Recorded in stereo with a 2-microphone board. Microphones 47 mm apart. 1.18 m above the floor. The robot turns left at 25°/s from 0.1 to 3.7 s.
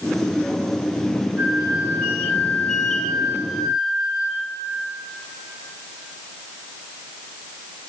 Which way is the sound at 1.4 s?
45° right.